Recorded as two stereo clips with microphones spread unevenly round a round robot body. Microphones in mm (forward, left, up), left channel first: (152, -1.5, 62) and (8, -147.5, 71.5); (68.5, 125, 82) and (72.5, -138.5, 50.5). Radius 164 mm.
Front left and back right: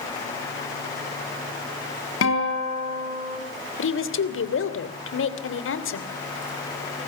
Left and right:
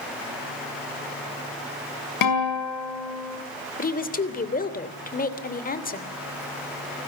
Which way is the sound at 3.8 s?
30° left.